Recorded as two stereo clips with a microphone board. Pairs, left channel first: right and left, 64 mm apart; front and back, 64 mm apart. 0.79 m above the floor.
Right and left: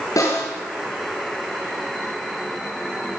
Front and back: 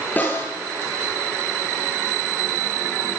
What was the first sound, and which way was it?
A snare drum, 60° right.